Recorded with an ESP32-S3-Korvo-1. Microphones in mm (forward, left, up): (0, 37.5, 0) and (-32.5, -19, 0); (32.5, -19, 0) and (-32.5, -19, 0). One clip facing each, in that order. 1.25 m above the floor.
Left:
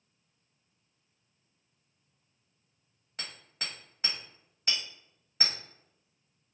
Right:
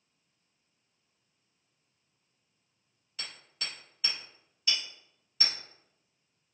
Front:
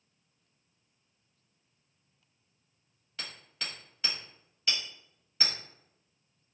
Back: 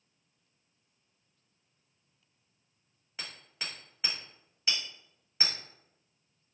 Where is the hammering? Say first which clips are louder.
Left 1 dB, front 1 dB; 110° left, 1.3 m.